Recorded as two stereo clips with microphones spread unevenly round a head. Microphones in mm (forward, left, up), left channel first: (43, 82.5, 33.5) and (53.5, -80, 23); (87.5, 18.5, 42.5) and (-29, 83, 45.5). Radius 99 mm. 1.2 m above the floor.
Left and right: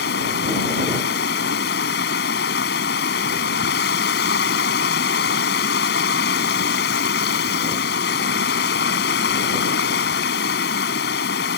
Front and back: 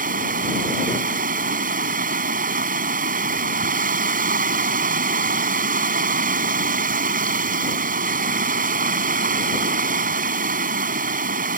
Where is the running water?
135° left.